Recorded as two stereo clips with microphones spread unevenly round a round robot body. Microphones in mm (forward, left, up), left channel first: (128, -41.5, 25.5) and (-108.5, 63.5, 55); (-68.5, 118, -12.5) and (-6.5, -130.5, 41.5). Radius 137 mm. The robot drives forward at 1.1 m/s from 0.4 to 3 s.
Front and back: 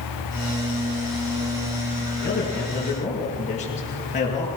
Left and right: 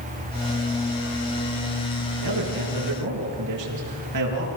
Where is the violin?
I don't hear a violin.